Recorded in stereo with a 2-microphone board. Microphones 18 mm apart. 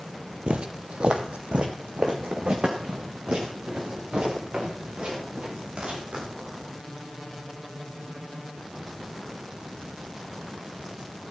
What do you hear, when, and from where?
0.5 s footsteps: 60° right (ahead or behind), 0.7 m; by 6.7 s 65° right (ahead or behind), 6.5 m